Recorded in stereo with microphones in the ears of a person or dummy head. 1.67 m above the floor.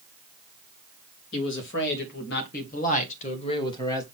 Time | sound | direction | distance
1.3 | a man speaking | 70° left (ahead or behind) | 3 m